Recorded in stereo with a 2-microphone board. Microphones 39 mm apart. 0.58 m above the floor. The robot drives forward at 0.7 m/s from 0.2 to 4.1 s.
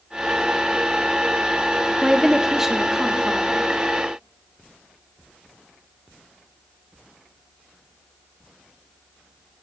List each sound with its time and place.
2.0 s a woman speaking: 15° right (ahead or behind), 0.7 m; by 3.7 s 5° right (ahead or behind), 1.5 m